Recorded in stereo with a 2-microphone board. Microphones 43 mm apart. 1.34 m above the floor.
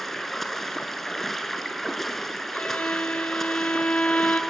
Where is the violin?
30° left (ahead or behind), 0.8 m.